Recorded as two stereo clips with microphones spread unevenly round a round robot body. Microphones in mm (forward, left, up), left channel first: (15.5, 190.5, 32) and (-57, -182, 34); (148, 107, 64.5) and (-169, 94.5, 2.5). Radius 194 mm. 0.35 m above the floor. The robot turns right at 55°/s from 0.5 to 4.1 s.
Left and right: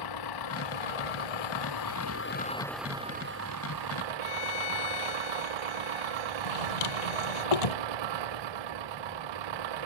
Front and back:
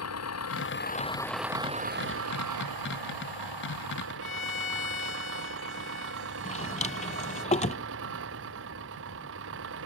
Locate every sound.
0.0 s an engine running: 45° left; by 9.9 s 120° right
4.2 s a violin: 55° left
6.5 s a drawer: 70° left